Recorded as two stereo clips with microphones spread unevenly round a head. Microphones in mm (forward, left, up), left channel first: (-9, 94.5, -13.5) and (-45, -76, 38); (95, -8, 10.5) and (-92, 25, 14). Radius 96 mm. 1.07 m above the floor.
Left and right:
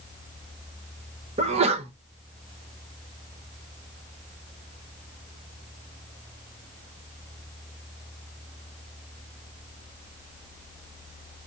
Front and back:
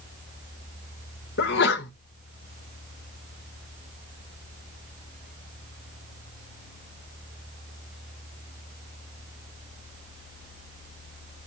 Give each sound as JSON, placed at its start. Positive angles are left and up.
{"t": 1.4, "sound": "a sneeze", "azimuth_deg": -40, "distance_m": 0.9}